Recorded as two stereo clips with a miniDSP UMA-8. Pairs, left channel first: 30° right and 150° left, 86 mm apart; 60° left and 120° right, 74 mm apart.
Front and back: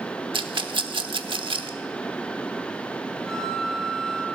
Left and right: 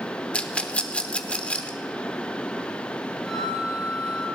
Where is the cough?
No cough in this recording.